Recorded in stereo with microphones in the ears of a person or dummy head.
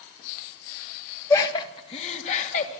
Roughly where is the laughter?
Centre.